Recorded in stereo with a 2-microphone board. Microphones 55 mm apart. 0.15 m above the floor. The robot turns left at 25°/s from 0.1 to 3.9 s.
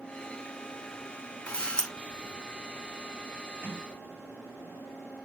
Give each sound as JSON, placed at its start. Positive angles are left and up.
{"t": 1.5, "sound": "a camera shutter", "side_deg": 20, "distance_m": 0.8}
{"t": 3.6, "sound": "a sliding door", "side_deg": -35, "distance_m": 3.5}